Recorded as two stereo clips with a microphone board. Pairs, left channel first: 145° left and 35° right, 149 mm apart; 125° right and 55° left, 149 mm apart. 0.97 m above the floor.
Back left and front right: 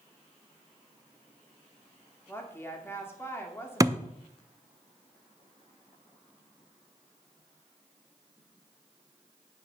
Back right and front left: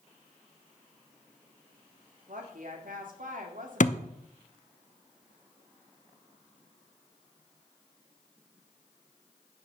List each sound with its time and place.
2.3 s a woman speaking: 70° left, 2 m
3.8 s a thud: 100° right, 0.6 m